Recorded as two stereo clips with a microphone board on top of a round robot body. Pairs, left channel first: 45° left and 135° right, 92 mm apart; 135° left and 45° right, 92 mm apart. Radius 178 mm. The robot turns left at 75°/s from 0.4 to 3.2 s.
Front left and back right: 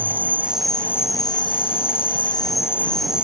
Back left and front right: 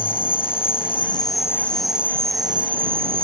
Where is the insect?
155° left; by 3.2 s 55° right.